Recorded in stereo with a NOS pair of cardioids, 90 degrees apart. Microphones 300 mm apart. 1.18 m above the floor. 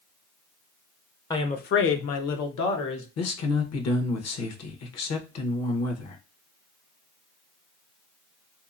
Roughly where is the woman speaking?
Ahead.